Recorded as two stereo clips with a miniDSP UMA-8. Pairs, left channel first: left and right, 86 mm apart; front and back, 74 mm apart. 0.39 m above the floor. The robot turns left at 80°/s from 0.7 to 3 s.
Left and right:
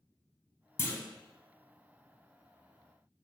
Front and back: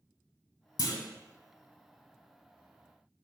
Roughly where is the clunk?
Ahead left.